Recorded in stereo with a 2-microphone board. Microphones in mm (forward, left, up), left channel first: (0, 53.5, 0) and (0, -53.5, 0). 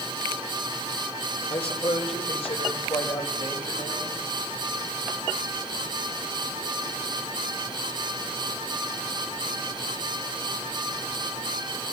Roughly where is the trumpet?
No trumpet in this recording.